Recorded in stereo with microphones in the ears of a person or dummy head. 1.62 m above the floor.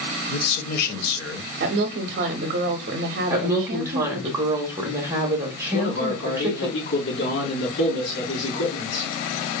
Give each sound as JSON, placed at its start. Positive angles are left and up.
{"t": 0.3, "sound": "a man speaking", "side_deg": 60, "distance_m": 1.0}
{"t": 1.6, "sound": "a woman speaking", "side_deg": -50, "distance_m": 0.6}
{"t": 3.3, "sound": "a woman speaking", "side_deg": -20, "distance_m": 1.0}
{"t": 5.7, "sound": "a man speaking", "side_deg": 80, "distance_m": 2.5}